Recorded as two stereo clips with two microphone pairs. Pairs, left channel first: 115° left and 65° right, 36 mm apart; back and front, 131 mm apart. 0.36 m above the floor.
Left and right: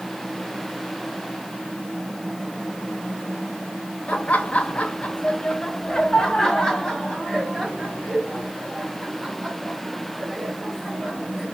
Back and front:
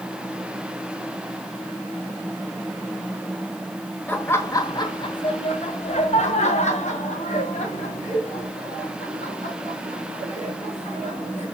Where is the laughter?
115° left, 1.2 m; by 11.4 s 150° right, 4.5 m.